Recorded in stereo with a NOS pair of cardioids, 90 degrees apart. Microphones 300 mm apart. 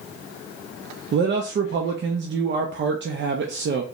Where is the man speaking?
40° right, 0.6 m.